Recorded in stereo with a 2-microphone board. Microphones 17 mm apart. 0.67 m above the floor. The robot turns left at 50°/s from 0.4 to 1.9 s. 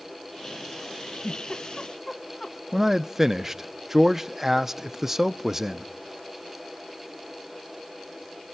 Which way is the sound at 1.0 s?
70° left (ahead or behind).